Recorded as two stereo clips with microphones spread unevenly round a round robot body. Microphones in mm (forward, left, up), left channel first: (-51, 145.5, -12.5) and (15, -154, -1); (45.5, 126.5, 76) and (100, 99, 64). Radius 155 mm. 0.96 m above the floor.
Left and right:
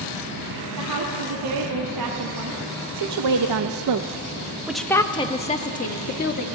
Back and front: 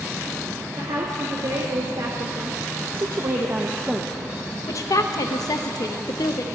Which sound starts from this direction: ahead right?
A woman speaking, at 0.8 s.